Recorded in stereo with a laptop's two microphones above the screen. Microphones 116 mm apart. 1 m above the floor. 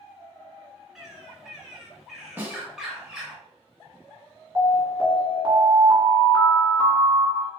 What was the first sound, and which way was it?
A bird, 5° right (ahead or behind).